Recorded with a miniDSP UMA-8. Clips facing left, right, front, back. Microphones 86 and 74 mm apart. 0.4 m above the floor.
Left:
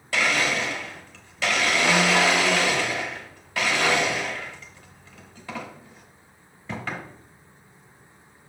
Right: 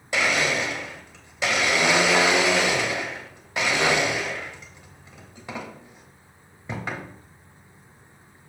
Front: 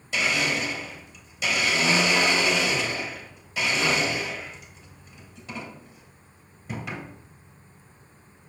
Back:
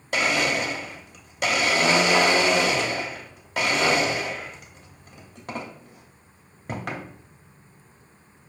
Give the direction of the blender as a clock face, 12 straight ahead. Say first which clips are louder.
Right 1 dB, back 3 dB; 5 o'clock.